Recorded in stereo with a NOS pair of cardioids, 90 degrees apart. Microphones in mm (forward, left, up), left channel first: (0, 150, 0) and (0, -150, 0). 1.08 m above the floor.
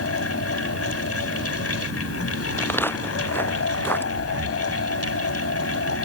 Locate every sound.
0.0 s a fan: 50° left
2.6 s footsteps: 5° left
4.2 s breathing: 45° right